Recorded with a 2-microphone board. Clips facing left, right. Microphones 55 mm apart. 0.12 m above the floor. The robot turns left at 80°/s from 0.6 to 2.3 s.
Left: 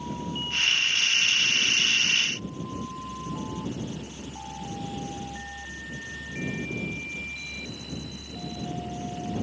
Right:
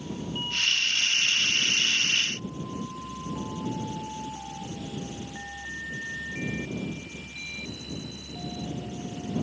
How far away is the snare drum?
No snare drum in this recording.